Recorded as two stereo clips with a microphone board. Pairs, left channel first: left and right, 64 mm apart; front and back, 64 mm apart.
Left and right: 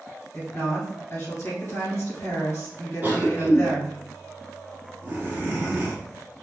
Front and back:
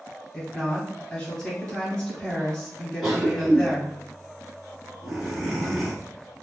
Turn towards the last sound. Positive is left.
turn(degrees=-95)